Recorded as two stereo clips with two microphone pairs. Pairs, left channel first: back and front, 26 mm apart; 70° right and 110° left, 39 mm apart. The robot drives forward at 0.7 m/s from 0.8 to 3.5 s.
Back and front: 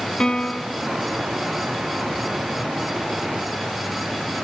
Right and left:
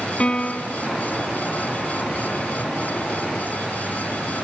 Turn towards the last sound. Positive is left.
turn(degrees=-145)